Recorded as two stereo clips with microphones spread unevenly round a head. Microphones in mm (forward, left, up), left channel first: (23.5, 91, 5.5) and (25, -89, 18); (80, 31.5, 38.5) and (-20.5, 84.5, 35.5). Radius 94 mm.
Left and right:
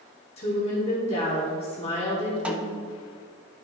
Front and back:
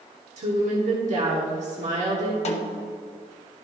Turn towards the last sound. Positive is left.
turn(degrees=-10)